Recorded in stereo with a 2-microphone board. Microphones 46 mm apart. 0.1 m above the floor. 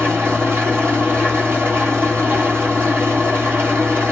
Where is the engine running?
50° right (ahead or behind), 1.9 m.